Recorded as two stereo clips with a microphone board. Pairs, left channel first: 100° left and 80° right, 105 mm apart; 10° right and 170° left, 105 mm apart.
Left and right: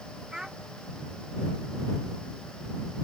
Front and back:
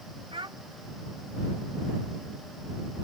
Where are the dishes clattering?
No dishes clattering in this recording.